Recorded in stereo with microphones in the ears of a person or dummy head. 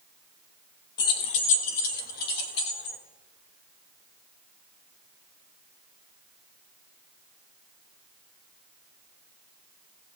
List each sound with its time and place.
1.0 s keys jangling: 25° left (ahead or behind), 1.0 m; by 3.0 s 65° left (ahead or behind), 2.5 m